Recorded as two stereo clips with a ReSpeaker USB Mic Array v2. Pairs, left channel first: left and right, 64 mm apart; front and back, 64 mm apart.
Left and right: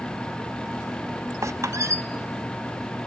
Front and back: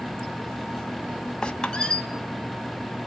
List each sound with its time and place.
1.4 s a squeak: 75° right, 1.3 m